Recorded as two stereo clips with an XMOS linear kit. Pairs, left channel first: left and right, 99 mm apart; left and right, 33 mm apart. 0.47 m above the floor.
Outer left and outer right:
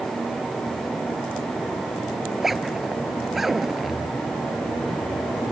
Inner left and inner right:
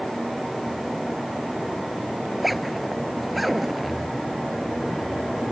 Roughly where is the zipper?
Centre.